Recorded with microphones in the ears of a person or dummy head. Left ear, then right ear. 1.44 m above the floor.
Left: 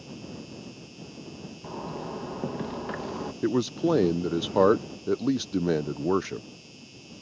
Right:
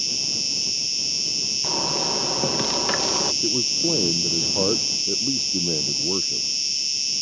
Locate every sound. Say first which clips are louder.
0.0 s an insect: right 20 dB; 75° right (ahead or behind)
1.6 s a zipper: right 14 dB; 85° right
3.4 s a man speaking: right 5 dB; 65° left (ahead or behind)